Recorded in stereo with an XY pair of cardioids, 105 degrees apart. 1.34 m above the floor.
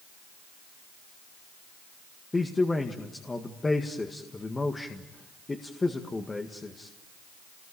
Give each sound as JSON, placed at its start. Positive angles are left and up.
{"t": 2.3, "sound": "a man speaking", "azimuth_deg": 20, "distance_m": 1.9}